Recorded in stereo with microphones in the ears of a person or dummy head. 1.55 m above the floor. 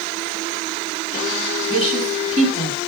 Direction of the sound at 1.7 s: 50° right (ahead or behind).